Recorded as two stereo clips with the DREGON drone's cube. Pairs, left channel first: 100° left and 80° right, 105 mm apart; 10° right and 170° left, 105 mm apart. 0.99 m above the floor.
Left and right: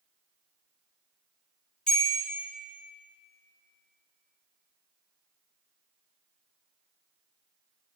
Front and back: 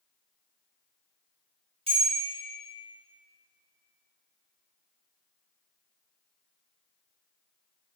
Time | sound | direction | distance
1.9 | a bell | 175° right | 1.7 m